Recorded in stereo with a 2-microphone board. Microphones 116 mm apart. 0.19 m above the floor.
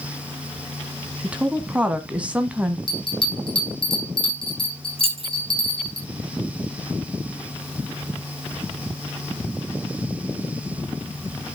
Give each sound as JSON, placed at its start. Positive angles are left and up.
{"t": 1.2, "sound": "a woman speaking", "side_deg": -10, "distance_m": 1.2}
{"t": 2.9, "sound": "a bell", "side_deg": 45, "distance_m": 6.0}
{"t": 5.0, "sound": "keys jangling", "side_deg": -50, "distance_m": 1.8}